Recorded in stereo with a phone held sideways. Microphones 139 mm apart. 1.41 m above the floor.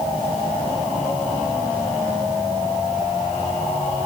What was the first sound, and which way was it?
Only background noise.